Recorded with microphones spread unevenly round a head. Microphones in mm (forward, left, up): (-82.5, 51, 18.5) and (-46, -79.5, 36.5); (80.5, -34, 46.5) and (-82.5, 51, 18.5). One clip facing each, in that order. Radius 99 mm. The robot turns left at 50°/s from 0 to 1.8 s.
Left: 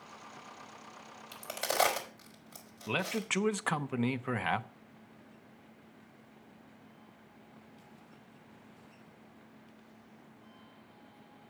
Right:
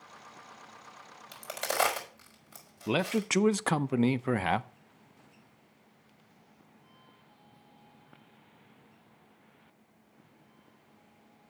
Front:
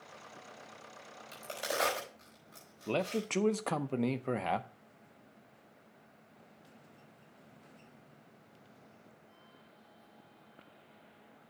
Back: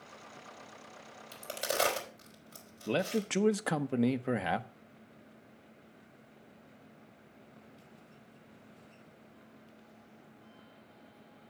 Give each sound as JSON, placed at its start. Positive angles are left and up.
{"t": 1.3, "sound": "a crack", "azimuth_deg": -125, "distance_m": 4.0}
{"t": 2.9, "sound": "a man speaking", "azimuth_deg": -130, "distance_m": 0.5}